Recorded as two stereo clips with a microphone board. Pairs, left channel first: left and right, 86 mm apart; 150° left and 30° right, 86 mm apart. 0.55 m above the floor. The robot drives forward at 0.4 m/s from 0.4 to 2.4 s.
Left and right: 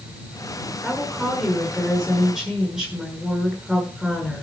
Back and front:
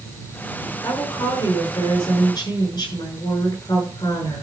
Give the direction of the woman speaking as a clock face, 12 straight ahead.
6 o'clock.